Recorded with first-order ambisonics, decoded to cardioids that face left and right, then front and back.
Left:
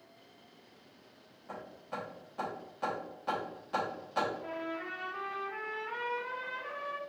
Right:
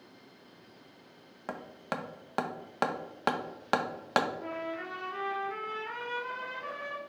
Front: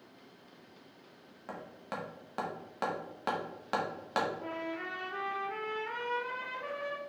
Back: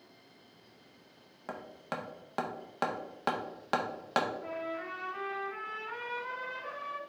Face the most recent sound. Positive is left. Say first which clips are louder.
# right 2 dB, back 1 dB
turn(degrees=-35)